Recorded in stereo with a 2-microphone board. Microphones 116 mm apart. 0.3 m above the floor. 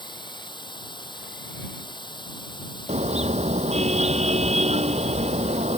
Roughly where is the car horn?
Right.